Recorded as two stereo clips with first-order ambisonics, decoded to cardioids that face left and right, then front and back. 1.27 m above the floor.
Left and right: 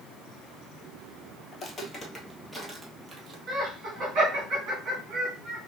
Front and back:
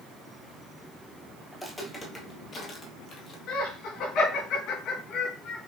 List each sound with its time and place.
1.5 s footsteps: 70° left, 1.4 m; by 3.4 s 35° right, 1.7 m
3.5 s laughter: 40° right, 2.5 m